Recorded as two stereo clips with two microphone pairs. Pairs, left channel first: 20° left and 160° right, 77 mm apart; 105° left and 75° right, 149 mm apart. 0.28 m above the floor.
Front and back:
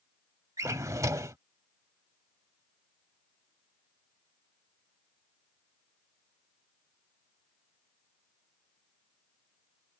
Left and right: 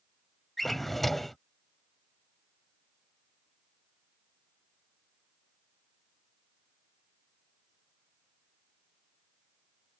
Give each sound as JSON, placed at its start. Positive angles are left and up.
{"t": 0.6, "sound": "a drawer", "azimuth_deg": -165}